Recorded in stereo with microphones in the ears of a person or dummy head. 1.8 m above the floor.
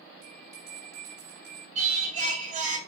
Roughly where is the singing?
Right.